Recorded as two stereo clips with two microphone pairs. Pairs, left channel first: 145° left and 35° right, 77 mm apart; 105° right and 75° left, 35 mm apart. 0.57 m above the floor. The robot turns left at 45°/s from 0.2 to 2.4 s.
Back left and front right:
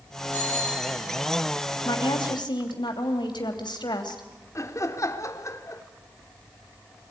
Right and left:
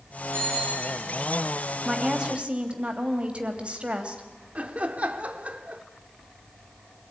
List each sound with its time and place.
0.3 s a bicycle bell: 80° left, 9.5 m; by 0.9 s 55° left, 9.5 m
1.9 s a woman speaking: 160° left, 3 m; by 4.2 s 135° left, 3 m
4.5 s laughter: 115° left, 1.8 m